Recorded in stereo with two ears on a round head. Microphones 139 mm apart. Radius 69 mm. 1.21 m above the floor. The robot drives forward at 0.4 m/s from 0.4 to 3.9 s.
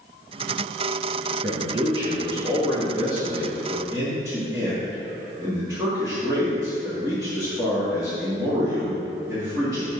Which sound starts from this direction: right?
A man speaking, at 1.4 s.